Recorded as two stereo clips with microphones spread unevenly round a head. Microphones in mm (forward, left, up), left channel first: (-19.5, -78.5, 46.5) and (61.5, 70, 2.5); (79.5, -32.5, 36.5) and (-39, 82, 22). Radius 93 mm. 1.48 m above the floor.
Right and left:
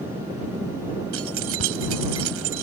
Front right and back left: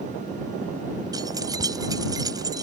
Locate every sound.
1.1 s keys jangling: 65° left